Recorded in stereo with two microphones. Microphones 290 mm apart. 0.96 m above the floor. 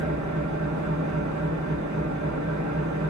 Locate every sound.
0.0 s an engine running: 80° right, 1.3 m